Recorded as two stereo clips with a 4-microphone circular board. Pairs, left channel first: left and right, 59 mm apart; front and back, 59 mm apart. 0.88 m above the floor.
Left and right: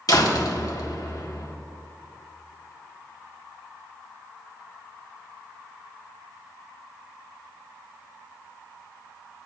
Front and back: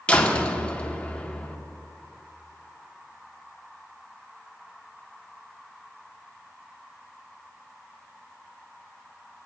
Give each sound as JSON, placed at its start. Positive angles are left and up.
{"t": 0.1, "sound": "a door slam", "azimuth_deg": 75, "distance_m": 1.4}